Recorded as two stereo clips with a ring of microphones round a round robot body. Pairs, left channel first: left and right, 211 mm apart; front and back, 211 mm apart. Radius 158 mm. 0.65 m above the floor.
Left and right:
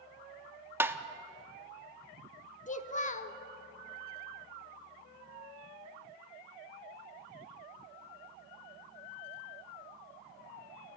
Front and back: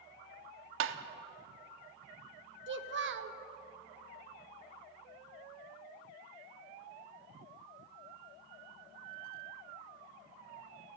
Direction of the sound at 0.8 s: 170° right.